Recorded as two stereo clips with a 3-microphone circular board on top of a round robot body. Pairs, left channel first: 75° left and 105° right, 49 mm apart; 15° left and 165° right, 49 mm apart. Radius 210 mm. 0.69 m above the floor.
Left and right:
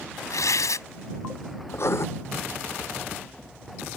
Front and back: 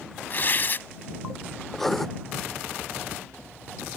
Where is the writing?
100° left.